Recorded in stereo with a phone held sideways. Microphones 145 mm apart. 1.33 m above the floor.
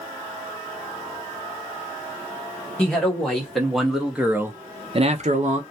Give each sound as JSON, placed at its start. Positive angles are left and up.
{"t": 2.8, "sound": "a man speaking", "side_deg": 5, "distance_m": 1.9}